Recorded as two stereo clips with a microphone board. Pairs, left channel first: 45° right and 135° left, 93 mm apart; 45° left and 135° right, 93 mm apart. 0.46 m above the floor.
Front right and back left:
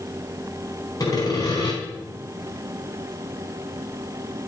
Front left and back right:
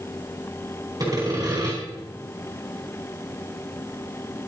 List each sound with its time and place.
1.0 s sawing: 90° right, 4 m